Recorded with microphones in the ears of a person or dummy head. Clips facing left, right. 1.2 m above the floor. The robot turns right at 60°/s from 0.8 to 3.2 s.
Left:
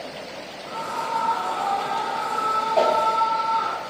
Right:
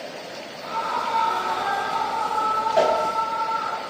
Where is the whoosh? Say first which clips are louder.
Even; 15° right (ahead or behind), 5.5 m; by 2.9 s 5° right (ahead or behind), 5.5 m.